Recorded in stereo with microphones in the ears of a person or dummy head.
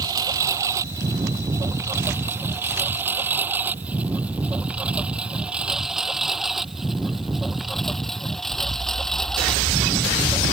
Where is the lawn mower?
20° right (ahead or behind); by 10.5 s 5° left (ahead or behind).